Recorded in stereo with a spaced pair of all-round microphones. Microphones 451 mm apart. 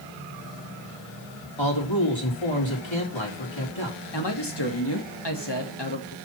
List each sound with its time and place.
1.6 s a man speaking: 85° left, 3.5 m
4.1 s a man speaking: 60° left (ahead or behind), 2.0 m